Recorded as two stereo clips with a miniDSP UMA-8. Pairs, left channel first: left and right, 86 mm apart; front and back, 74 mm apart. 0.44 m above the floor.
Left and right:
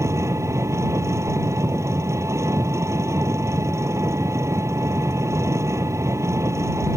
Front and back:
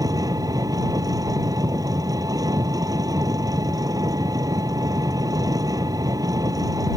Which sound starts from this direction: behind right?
An engine running, at 0.0 s.